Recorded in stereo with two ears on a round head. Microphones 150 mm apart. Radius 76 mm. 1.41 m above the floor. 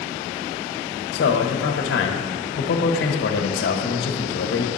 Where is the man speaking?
80° left, 1.2 m.